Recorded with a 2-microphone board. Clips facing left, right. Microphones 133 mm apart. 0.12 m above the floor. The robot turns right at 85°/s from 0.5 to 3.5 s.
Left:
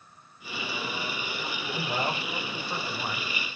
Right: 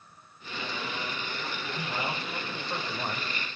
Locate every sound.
1.7 s a man speaking: 100° left, 5 m; by 3.6 s 110° right, 5 m